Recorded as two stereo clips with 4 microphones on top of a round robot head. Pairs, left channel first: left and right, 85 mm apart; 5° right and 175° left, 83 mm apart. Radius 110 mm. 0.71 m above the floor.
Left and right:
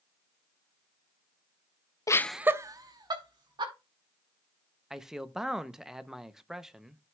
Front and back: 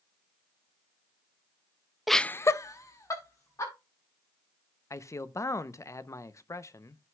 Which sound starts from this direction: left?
Laughter, at 2.1 s.